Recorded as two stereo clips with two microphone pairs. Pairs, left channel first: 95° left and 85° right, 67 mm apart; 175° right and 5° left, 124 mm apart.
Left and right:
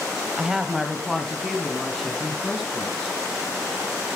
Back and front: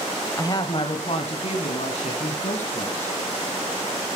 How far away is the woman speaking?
About 1.1 m.